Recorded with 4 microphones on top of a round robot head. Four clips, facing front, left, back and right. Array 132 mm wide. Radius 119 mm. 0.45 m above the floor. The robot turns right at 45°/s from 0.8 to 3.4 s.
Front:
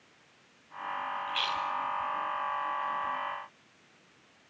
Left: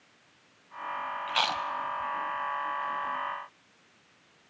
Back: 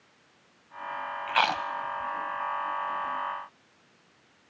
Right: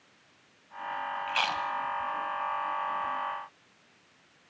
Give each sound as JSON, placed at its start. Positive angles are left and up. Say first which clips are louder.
{"t": 1.3, "sound": "chewing", "louder": "left 2 dB, back 11 dB", "azimuth_deg": 160, "distance_m": 0.6}